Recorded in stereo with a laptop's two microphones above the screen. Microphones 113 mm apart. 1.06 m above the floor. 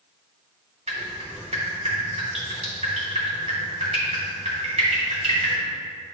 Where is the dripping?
70° right (ahead or behind), 2 m.